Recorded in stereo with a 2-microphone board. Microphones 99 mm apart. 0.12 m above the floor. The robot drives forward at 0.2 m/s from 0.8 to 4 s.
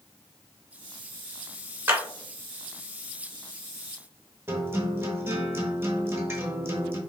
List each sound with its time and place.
1.9 s a clap: 25° right (ahead or behind), 0.9 m
4.5 s a guitar: 25° right (ahead or behind), 0.7 m